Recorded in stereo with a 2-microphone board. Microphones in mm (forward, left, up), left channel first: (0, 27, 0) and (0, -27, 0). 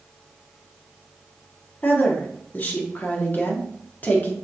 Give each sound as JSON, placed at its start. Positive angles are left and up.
{"t": 1.8, "sound": "a woman speaking", "side_deg": 35, "distance_m": 1.1}